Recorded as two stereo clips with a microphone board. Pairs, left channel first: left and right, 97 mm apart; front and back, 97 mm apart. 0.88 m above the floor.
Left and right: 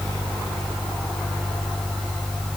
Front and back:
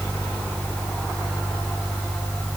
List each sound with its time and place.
Only background noise.